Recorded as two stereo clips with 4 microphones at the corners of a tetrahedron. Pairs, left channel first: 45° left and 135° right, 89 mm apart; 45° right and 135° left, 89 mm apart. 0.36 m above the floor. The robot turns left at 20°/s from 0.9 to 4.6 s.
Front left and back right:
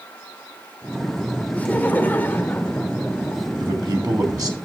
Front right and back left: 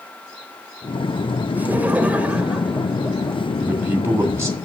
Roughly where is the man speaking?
Behind right.